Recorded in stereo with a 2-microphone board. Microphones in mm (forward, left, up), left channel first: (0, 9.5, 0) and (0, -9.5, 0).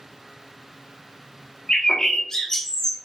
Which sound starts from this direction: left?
A bird, at 1.7 s.